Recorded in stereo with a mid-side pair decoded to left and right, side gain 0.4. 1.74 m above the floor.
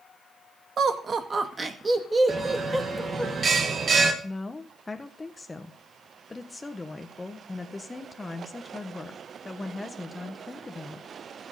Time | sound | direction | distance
0.8 | laughter | 55° right | 2 m
2.3 | a bell | 45° right | 2.5 m
4.2 | a woman speaking | 20° left | 1.3 m